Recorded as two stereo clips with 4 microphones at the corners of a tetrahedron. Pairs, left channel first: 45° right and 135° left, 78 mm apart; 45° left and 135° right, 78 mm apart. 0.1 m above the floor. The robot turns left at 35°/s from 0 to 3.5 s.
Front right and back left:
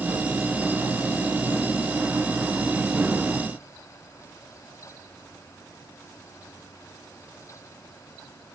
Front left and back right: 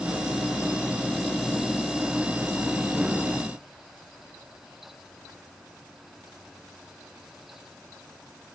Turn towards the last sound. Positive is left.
No sound to turn to.